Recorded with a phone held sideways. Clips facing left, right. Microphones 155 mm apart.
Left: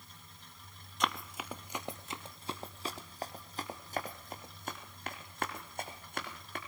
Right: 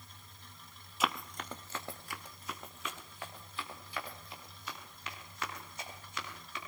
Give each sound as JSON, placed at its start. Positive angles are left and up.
{"t": 1.0, "sound": "running footsteps", "side_deg": -5, "distance_m": 1.2}